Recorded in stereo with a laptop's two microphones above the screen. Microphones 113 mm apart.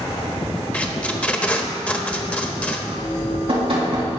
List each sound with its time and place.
0.7 s tape being pulled: 10° left (ahead or behind), 1.0 m
3.0 s dripping: 55° right (ahead or behind), 2.0 m